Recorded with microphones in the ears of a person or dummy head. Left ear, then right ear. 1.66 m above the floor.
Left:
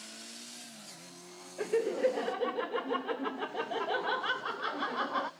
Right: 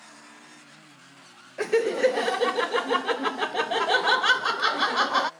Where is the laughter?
65° right (ahead or behind), 0.5 m.